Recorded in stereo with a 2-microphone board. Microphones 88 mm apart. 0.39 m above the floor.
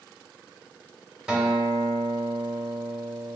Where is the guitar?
10° right (ahead or behind), 0.7 m.